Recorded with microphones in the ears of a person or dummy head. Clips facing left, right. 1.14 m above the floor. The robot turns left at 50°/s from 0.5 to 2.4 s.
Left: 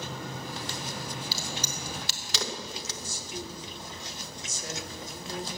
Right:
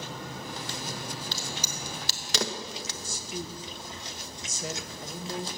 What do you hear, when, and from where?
1.3 s a crack: 5° left (ahead or behind), 1.0 m; by 2.9 s 45° right (ahead or behind), 1.0 m
3.0 s a woman speaking: 60° right (ahead or behind), 1.5 m